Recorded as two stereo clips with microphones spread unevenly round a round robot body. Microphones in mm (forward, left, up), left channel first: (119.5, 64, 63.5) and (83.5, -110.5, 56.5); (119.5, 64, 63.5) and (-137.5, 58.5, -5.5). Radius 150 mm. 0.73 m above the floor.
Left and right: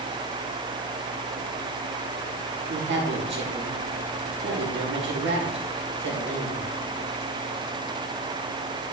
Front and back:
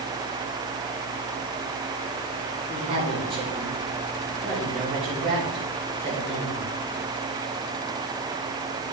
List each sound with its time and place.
2.7 s a woman speaking: 110° right, 3 m